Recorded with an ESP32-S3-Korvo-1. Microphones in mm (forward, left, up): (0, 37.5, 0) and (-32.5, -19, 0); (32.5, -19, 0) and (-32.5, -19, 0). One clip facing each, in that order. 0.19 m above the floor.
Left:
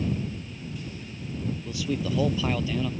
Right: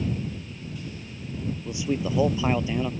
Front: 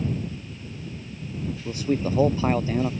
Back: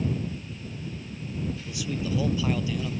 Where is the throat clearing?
No throat clearing in this recording.